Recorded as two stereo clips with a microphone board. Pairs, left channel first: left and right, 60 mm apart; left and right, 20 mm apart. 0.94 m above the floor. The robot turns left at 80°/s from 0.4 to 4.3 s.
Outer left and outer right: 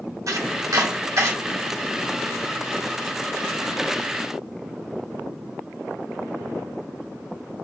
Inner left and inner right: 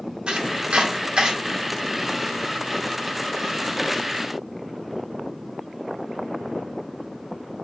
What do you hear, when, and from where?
0.3 s chopping: 60° right (ahead or behind), 0.9 m; by 1.3 s 40° right (ahead or behind), 0.9 m